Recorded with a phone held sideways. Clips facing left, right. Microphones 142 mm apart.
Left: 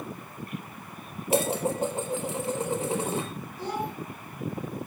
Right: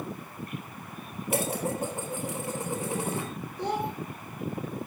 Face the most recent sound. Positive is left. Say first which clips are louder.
# right 2 dB
turn(degrees=-20)  # may be behind; listen again after turning